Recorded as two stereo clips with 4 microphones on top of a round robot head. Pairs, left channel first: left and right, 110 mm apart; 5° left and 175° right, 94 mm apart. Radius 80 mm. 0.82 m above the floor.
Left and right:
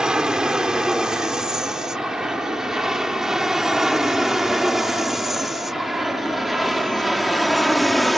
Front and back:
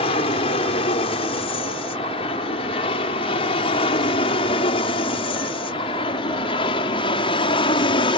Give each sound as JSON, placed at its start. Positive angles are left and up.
{"t": 0.0, "sound": "an aircraft", "azimuth_deg": -5}